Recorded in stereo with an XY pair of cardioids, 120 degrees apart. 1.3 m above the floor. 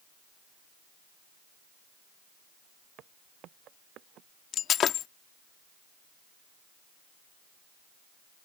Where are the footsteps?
65° right; by 4.3 s 70° right.